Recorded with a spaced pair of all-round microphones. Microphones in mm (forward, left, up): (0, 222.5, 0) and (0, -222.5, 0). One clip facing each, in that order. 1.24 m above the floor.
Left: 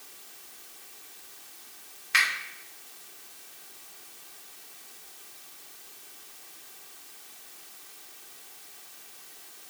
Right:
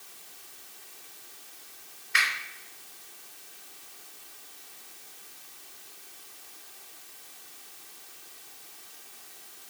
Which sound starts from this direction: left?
A finger snap, at 2.1 s.